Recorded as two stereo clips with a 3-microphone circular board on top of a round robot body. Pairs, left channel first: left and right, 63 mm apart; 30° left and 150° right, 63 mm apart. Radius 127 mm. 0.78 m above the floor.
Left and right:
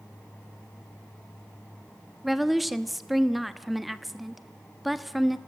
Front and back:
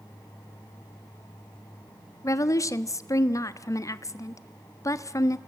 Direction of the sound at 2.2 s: Straight ahead.